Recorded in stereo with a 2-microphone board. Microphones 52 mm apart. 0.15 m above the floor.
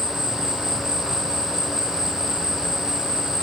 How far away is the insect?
About 0.8 m.